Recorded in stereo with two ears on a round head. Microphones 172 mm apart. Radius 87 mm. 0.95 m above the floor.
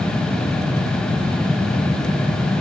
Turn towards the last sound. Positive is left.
No sound to turn to.